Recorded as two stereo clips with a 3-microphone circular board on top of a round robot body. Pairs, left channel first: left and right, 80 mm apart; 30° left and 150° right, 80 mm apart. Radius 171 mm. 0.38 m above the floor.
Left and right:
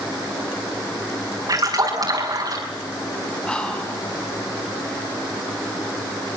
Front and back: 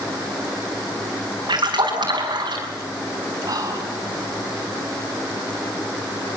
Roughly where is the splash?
Behind right.